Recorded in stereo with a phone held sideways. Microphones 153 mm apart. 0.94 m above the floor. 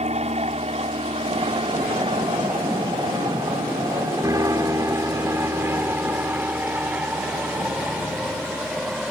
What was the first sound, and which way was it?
An aircraft, 45° right (ahead or behind).